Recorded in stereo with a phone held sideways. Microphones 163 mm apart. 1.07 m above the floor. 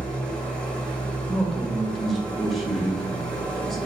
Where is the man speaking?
Centre (ahead or behind), 1.2 m.